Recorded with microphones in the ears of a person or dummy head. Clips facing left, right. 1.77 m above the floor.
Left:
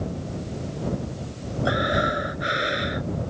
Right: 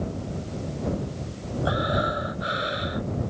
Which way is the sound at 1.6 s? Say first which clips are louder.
Left 2 dB; 25° left (ahead or behind).